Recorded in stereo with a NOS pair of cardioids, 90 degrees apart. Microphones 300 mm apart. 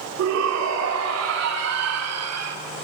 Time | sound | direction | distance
0.2 | a shout | 60° right | 4.5 m